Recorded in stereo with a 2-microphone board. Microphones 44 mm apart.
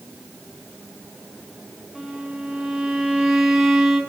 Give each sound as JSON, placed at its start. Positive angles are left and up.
{"t": 1.9, "sound": "a violin", "side_deg": -10, "distance_m": 5.5}